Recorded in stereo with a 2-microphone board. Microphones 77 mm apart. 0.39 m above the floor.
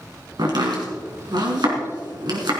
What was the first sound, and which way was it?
Chopping, 65° right (ahead or behind).